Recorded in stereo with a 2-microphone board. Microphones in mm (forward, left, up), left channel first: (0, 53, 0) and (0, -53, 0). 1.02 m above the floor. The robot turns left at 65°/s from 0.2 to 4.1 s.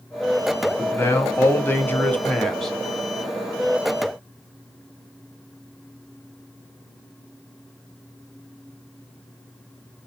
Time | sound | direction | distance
0.8 | a man speaking | 20° left (ahead or behind) | 0.5 m